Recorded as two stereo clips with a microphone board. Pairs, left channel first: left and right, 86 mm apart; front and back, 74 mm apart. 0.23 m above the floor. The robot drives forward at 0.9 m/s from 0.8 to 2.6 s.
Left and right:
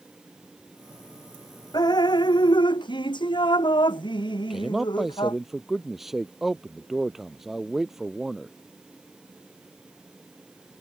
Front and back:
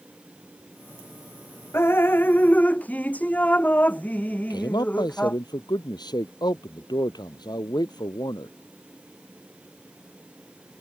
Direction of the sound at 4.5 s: 5° right.